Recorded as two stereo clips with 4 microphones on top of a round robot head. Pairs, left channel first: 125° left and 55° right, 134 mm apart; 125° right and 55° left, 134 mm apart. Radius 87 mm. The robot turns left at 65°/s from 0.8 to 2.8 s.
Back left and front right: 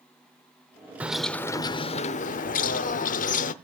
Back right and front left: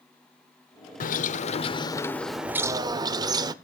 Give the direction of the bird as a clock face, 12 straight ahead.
4 o'clock.